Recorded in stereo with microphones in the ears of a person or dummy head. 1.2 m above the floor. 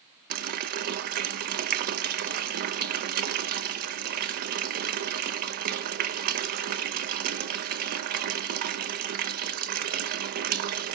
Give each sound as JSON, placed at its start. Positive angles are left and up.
{"t": 0.3, "sound": "a running tap", "side_deg": -50, "distance_m": 0.5}